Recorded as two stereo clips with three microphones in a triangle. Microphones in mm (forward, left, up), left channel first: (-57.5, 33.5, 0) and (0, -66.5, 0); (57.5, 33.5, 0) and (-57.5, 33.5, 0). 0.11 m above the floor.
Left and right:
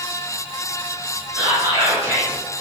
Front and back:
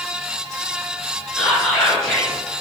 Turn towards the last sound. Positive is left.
turn(degrees=-75)